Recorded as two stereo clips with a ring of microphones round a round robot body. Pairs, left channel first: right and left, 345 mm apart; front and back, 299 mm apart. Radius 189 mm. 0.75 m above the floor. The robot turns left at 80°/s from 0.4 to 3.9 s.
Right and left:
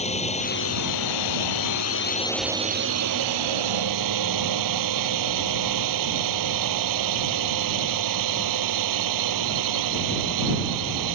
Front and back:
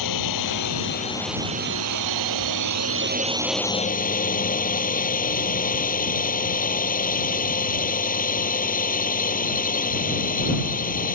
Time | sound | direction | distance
0.0 | a drone | 20° right | ?